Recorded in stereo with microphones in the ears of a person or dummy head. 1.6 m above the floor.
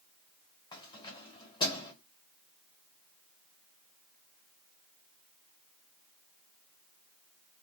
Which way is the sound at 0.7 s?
30° left (ahead or behind).